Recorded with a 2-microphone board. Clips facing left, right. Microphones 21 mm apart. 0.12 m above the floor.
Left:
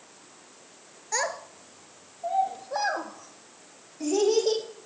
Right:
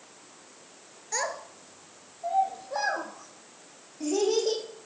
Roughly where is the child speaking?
Centre.